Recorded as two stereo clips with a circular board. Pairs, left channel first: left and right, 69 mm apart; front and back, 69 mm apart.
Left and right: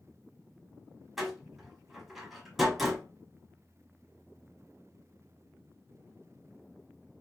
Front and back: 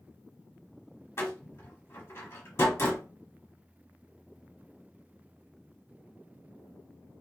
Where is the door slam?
5° right, 1.3 m.